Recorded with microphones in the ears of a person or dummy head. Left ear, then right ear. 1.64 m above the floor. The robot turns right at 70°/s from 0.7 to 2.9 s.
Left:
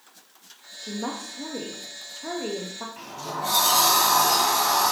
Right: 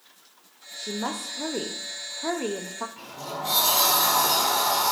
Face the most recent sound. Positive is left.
turn(degrees=20)  # may be behind; listen again after turning